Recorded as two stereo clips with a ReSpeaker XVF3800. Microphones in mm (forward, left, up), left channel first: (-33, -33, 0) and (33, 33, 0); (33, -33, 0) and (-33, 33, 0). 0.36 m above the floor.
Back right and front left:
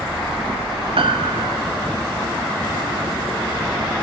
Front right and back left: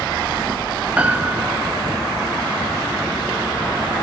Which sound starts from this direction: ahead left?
A piano, at 1.0 s.